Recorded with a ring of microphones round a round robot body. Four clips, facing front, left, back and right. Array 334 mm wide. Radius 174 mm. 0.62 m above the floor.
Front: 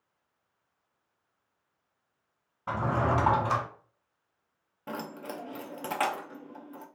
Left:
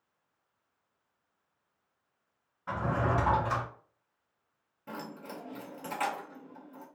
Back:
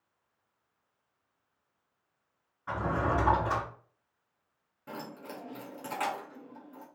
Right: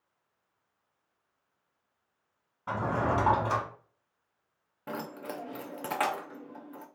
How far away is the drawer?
About 1.6 m.